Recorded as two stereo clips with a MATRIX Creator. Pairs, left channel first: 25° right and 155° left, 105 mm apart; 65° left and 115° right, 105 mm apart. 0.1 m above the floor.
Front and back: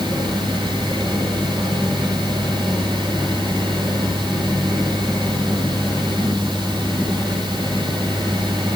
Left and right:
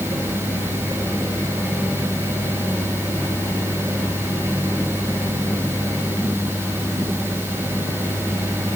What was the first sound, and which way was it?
Only background noise.